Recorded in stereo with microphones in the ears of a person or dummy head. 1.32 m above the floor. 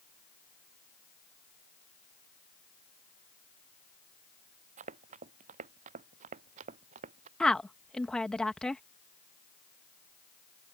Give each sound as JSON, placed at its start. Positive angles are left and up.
{"t": 4.8, "sound": "running footsteps", "side_deg": -40}
{"t": 7.4, "sound": "a woman speaking", "side_deg": 0}